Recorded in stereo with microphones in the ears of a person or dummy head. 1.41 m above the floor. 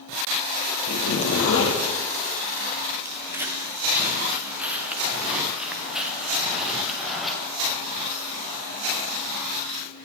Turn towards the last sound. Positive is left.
turn(degrees=0)  # may be behind; listen again after turning